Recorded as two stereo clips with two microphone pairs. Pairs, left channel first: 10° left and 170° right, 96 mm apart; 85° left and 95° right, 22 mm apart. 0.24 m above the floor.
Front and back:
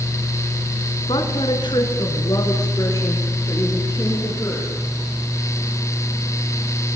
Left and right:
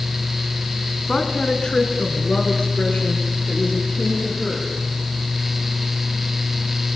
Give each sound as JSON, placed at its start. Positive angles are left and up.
{"t": 1.1, "sound": "a woman speaking", "azimuth_deg": 25, "distance_m": 2.5}